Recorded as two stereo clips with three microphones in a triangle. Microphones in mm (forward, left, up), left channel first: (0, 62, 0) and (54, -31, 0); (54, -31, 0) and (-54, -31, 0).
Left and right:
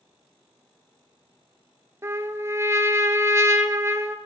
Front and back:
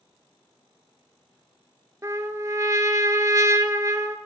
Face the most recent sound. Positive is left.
turn(degrees=-120)